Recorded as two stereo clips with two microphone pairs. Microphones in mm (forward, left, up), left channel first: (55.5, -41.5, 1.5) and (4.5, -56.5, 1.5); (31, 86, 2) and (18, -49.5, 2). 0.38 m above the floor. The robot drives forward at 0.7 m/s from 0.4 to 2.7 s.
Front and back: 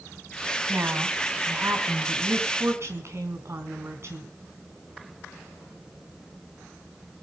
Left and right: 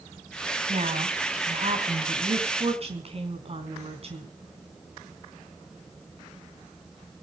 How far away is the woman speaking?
About 3 m.